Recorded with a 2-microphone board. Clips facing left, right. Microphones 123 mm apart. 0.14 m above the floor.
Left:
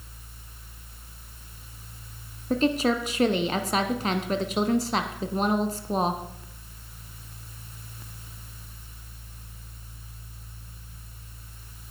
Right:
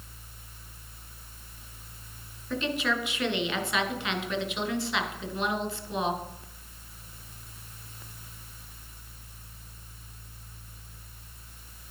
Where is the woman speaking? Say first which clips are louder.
Left 7 dB; 45° left (ahead or behind), 1.4 m.